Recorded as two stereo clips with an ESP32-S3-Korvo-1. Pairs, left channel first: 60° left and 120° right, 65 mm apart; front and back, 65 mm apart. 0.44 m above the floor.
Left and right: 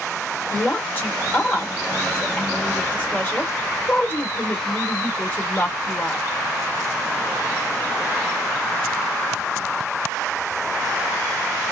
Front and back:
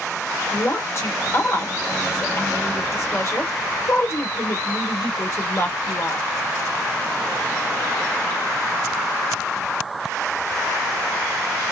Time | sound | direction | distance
0.5 | a woman speaking | 10° left | 1.5 m